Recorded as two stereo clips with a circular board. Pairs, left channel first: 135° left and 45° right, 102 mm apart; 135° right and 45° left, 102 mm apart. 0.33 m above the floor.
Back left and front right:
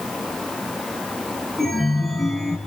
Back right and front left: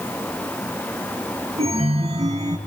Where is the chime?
45° left, 5 m.